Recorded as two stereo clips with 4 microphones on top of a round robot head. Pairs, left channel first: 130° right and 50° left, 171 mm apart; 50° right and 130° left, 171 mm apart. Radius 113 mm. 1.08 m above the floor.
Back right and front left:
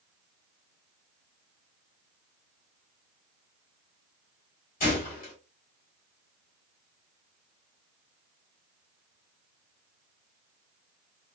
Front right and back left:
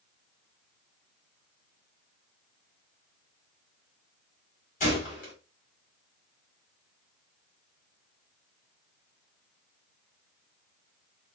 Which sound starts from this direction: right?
A gunshot, at 4.8 s.